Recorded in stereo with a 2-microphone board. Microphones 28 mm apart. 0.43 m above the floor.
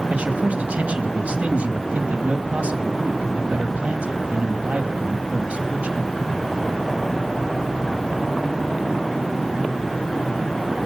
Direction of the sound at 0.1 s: 60° right (ahead or behind).